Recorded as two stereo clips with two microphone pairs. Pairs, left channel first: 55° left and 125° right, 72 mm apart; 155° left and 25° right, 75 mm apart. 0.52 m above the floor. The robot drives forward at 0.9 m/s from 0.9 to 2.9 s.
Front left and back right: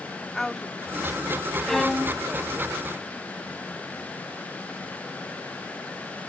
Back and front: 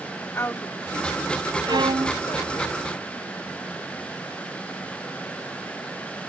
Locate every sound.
0.3 s a woman speaking: 135° left; by 2.7 s 165° left
1.7 s a violin: 30° right; by 2.2 s 40° right